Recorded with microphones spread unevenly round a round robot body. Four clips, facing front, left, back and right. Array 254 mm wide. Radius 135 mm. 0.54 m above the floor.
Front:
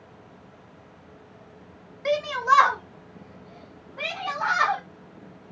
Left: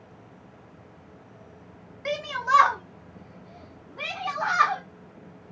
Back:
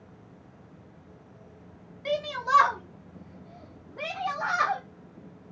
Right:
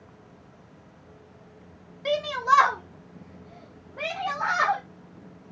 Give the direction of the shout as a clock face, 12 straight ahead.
2 o'clock.